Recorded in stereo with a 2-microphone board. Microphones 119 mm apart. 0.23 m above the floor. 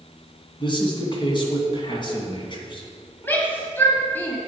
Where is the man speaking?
40° left (ahead or behind), 2.5 m.